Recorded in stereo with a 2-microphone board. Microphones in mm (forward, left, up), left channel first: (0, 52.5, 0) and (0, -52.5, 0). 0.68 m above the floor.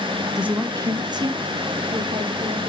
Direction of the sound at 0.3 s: 5° right (ahead or behind).